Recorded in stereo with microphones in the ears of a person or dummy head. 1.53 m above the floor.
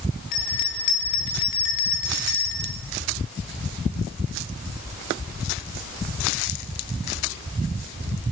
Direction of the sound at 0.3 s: 50° left (ahead or behind).